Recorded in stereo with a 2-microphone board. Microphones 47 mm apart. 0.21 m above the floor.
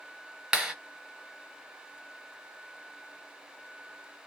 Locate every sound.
0.5 s a clap: 10° right (ahead or behind), 1.0 m